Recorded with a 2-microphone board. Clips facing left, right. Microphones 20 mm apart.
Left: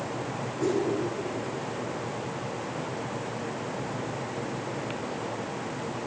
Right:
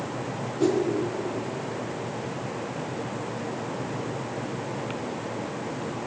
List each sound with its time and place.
0.6 s a whoosh: 45° right (ahead or behind), 2.5 m